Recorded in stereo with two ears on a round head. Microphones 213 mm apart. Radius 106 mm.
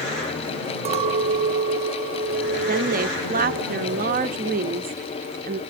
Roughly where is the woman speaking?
Right.